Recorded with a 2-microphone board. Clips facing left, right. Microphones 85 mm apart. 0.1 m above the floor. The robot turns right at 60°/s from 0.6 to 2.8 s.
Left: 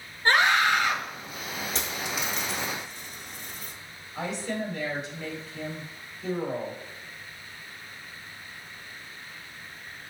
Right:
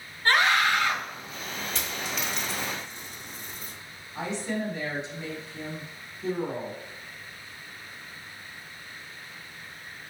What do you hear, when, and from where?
0.2 s a scream: 20° left (ahead or behind), 1.3 m; by 1.0 s 10° left (ahead or behind), 1.3 m
1.8 s a dropped coin: 35° left (ahead or behind), 1.4 m; by 3.7 s 20° right (ahead or behind), 1.4 m
4.2 s a woman speaking: 25° right (ahead or behind), 1.9 m